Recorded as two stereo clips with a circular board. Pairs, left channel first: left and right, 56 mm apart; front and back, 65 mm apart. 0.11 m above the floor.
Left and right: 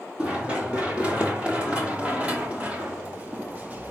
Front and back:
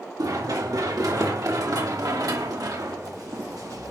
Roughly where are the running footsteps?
Behind.